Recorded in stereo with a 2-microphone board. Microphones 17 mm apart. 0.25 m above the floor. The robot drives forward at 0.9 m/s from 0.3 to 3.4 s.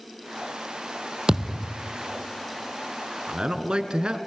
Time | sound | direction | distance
1.3 | a thud | 35° right (ahead or behind) | 1.9 m
3.3 | a man speaking | 60° right (ahead or behind) | 2.5 m